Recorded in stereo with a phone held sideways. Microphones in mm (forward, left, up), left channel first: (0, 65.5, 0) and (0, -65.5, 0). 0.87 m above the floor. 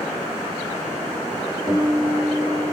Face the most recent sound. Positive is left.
turn(degrees=0)  # may be behind; listen again after turning